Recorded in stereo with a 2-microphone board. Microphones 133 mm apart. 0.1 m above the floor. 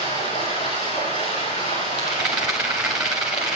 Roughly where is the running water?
Left.